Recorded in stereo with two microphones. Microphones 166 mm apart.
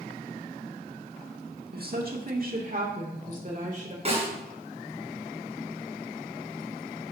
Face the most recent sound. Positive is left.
turn(degrees=-40)  # may be behind; listen again after turning